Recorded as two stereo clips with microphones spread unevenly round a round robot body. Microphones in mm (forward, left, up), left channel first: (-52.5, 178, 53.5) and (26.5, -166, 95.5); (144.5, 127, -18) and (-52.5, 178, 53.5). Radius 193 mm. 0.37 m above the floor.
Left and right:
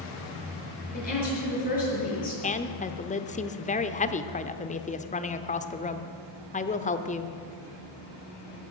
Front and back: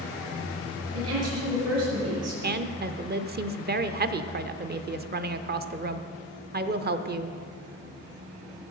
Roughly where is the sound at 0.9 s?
Behind.